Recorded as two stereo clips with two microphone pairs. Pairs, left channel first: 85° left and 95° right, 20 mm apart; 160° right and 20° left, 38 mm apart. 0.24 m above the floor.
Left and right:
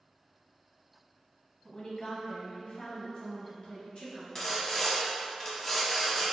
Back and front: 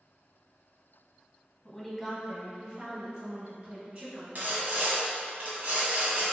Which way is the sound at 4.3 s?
20° left.